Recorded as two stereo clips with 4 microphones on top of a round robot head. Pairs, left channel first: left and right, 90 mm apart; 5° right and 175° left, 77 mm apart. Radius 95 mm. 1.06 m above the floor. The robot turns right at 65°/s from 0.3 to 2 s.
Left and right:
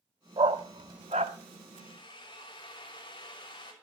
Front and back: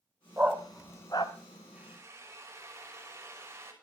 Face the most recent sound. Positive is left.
turn(degrees=120)